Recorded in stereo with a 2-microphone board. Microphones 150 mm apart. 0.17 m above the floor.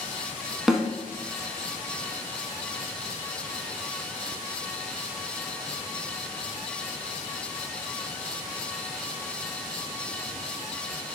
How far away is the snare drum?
About 0.7 m.